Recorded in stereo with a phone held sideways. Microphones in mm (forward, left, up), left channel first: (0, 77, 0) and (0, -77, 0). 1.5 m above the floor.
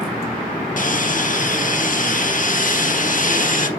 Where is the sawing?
60° left (ahead or behind), 1.7 m.